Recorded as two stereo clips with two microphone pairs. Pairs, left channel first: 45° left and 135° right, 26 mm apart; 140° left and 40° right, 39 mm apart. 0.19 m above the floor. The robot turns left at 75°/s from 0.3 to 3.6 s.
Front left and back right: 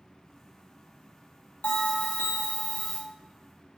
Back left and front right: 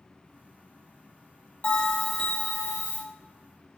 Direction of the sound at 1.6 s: 80° left.